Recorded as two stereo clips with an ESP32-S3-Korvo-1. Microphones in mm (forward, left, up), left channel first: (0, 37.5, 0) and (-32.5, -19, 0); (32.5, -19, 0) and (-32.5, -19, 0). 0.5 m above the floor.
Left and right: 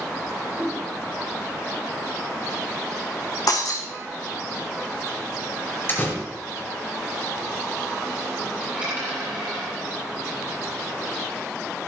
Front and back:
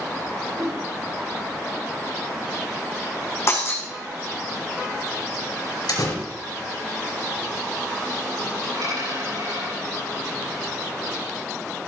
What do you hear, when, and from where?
0.5 s a whoosh: 165° left, 5 m
3.5 s breaking glass: 45° left, 3 m
5.9 s a door slam: 5° left, 5 m
8.6 s a dropped coin: 165° left, 7.5 m